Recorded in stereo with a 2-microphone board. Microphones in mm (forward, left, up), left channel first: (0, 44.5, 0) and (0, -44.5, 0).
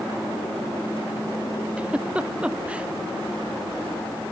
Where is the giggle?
10° right (ahead or behind).